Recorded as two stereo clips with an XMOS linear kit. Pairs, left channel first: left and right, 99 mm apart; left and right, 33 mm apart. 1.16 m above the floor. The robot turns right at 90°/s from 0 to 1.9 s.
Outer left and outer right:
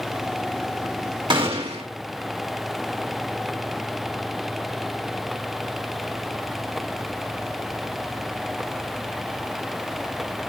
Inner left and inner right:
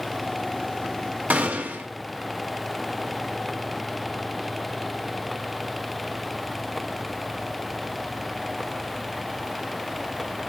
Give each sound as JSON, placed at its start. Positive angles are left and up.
{"t": 1.3, "sound": "a gunshot", "azimuth_deg": -125, "distance_m": 1.9}